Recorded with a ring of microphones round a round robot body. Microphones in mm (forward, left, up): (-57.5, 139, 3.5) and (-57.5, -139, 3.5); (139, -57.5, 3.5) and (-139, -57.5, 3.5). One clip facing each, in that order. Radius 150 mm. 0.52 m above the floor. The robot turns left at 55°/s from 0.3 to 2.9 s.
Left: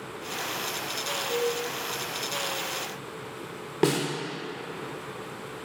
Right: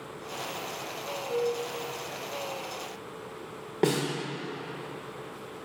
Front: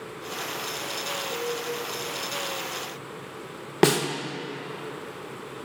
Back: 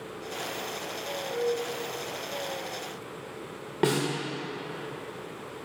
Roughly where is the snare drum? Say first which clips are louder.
Left 2 dB, front 5 dB; ahead.